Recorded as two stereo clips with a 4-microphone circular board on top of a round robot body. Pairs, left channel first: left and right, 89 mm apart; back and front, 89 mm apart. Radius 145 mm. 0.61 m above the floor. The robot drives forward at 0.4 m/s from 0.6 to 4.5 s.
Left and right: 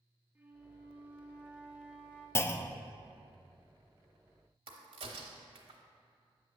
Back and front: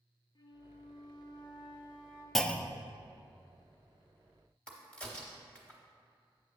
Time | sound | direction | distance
0.3 | a flute | 160° right | 0.9 m
2.4 | a clunk | 95° left | 0.5 m
4.7 | a crack | 100° right | 0.6 m